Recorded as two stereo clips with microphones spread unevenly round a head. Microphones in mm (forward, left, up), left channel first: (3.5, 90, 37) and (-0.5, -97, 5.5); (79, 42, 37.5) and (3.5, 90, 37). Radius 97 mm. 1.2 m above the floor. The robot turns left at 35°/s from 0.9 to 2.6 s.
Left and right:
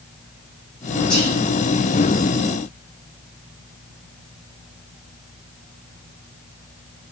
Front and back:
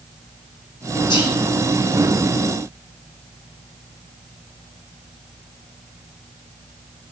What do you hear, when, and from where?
1.1 s whispering: 5° left, 1.9 m; by 1.4 s 5° right, 1.9 m